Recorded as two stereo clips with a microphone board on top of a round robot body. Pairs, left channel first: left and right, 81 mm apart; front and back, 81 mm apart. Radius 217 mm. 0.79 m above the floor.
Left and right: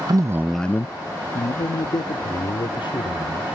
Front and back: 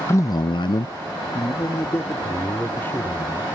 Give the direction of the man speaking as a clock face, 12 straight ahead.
2 o'clock.